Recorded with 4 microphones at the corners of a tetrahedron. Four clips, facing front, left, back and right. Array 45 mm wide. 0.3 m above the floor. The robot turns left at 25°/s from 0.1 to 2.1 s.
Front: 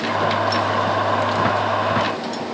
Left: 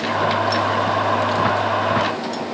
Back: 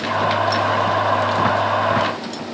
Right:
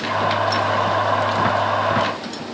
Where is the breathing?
I don't hear breathing.